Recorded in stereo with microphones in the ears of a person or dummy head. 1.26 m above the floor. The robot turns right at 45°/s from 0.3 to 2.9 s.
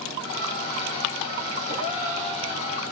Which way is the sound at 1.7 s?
145° left.